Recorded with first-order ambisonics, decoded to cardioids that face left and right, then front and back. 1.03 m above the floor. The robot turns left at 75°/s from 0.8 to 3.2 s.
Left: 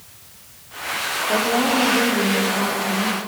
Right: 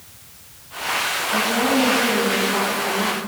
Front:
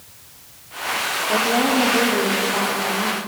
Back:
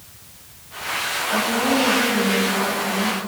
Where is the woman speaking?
55° left, 3 m; by 3.2 s 85° right, 3 m.